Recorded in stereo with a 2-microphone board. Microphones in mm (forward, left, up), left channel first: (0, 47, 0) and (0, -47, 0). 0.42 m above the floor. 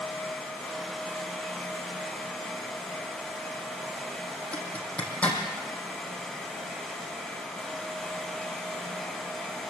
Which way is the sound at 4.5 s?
15° left (ahead or behind).